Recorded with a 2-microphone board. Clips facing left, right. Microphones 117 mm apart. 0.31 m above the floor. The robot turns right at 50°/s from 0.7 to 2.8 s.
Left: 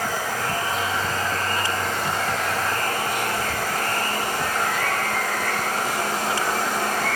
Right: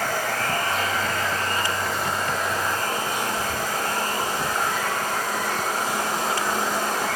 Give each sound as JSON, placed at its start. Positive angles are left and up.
{"t": 0.0, "sound": "running water", "azimuth_deg": 10, "distance_m": 4.0}